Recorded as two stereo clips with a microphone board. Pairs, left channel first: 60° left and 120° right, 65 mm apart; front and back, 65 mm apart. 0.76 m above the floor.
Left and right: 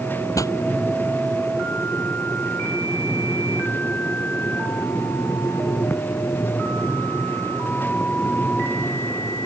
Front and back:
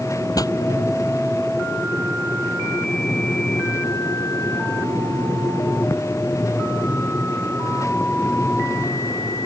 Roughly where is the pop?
Ahead left.